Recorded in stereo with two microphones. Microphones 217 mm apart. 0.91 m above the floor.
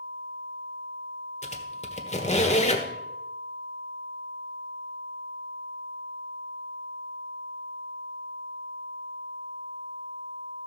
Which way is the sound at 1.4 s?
30° left (ahead or behind).